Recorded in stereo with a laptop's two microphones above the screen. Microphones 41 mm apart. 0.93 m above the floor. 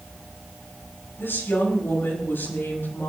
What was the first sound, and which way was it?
A woman speaking, 65° left (ahead or behind).